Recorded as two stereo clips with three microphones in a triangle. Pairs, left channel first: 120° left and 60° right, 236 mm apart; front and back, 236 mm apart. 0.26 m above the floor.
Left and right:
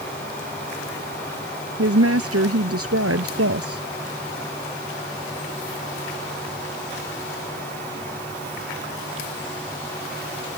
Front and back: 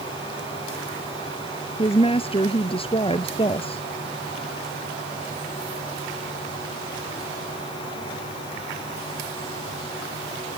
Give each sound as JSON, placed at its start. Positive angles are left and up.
{"t": 1.8, "sound": "a woman speaking", "azimuth_deg": -65}